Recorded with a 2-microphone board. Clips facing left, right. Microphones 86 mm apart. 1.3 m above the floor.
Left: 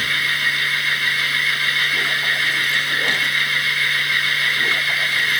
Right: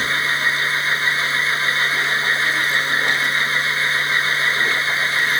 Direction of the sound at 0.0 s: 30° right (ahead or behind).